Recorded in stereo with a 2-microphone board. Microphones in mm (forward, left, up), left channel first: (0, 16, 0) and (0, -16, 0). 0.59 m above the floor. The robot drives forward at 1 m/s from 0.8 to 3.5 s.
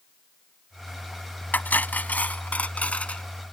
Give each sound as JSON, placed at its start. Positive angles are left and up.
{"t": 1.5, "sound": "cutlery clinking", "side_deg": 65}